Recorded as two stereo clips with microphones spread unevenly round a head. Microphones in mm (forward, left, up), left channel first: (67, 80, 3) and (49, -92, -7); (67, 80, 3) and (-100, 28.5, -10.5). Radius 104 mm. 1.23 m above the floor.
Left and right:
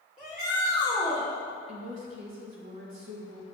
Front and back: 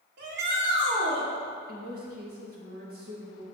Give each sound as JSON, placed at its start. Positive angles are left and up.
{"t": 0.2, "sound": "a shout", "azimuth_deg": 180, "distance_m": 2.5}
{"t": 1.7, "sound": "a woman speaking", "azimuth_deg": -115, "distance_m": 1.8}